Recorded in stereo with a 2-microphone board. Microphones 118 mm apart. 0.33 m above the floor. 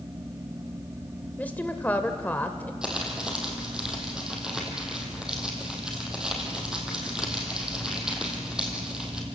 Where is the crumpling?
5° right (ahead or behind), 3.5 m.